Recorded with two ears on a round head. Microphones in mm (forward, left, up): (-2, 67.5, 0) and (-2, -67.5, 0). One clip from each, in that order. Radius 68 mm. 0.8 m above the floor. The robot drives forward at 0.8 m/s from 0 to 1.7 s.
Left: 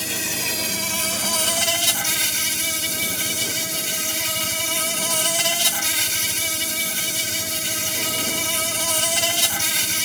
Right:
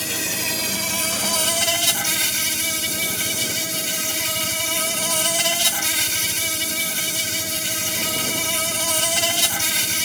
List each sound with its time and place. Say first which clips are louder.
0.0 s an insect: right 1 dB; 5° left (ahead or behind)